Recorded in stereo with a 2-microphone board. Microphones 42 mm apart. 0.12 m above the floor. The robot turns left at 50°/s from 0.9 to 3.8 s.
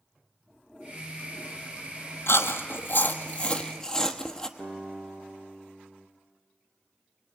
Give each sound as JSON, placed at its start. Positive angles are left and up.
{"t": 2.3, "sound": "chewing", "side_deg": 75, "distance_m": 1.1}
{"t": 4.6, "sound": "a guitar", "side_deg": 15, "distance_m": 3.0}